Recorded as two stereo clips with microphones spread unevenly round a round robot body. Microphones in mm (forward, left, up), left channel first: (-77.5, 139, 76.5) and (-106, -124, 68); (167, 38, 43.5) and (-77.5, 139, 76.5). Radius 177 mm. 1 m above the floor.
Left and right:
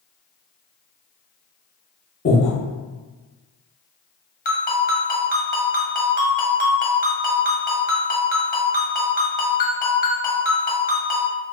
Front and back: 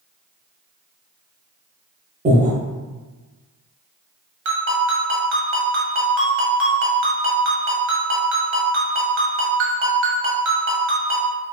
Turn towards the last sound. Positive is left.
turn(degrees=135)